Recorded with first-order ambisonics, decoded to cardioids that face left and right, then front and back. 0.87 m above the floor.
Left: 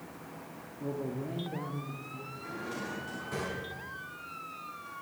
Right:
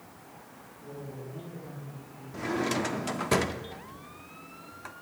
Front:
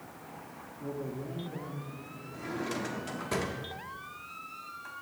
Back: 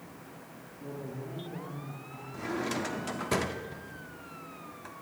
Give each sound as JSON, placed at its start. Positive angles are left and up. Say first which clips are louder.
{"t": 0.8, "sound": "a man speaking", "louder": "left 6 dB, front 3 dB", "azimuth_deg": 75, "distance_m": 2.0}
{"t": 2.3, "sound": "a drawer", "louder": "right 11 dB, back 2 dB", "azimuth_deg": -105, "distance_m": 1.1}